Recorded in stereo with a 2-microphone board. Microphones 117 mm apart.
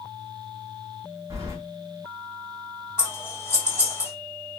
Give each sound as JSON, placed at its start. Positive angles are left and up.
{"t": 1.3, "sound": "keys jangling", "side_deg": -25, "distance_m": 1.3}
{"t": 3.0, "sound": "scissors", "side_deg": 25, "distance_m": 2.0}